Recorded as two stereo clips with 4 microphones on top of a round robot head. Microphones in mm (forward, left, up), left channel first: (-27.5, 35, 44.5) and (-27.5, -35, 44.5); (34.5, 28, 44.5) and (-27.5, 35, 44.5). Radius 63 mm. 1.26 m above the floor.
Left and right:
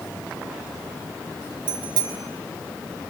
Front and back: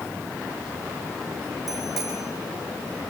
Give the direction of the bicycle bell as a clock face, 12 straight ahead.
3 o'clock.